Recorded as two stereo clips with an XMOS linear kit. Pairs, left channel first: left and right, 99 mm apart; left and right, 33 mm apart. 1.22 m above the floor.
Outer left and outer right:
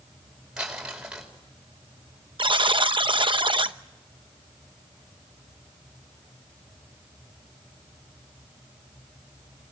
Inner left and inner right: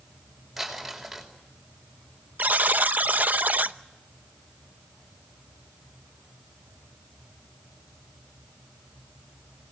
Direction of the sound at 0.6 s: 5° right (ahead or behind).